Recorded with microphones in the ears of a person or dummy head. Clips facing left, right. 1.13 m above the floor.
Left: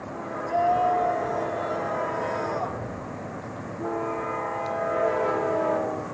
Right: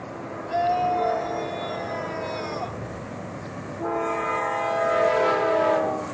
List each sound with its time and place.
0.5 s a scream: 20° right (ahead or behind)